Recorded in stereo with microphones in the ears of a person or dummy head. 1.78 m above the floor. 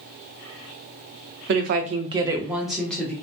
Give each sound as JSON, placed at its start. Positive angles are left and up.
{"t": 1.5, "sound": "a woman speaking", "side_deg": -65, "distance_m": 0.5}